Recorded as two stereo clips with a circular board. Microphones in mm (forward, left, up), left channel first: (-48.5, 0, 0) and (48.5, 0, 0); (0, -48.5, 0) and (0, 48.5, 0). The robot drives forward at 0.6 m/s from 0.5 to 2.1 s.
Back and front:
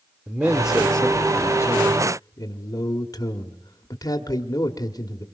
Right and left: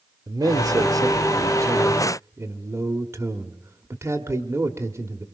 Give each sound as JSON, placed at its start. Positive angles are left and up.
{"t": 0.3, "sound": "a man speaking", "azimuth_deg": 70, "distance_m": 0.9}